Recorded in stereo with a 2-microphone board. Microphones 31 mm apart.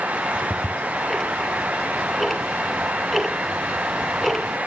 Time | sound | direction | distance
0.1 | ticking | 5° right (ahead or behind) | 0.7 m